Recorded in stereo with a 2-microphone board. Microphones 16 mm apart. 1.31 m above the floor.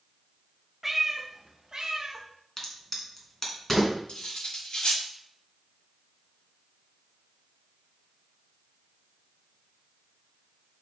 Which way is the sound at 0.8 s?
20° right (ahead or behind).